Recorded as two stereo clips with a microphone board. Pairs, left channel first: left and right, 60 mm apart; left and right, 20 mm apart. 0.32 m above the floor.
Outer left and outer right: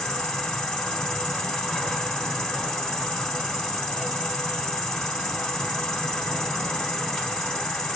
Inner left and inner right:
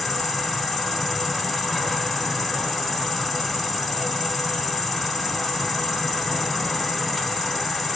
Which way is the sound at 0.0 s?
10° left (ahead or behind).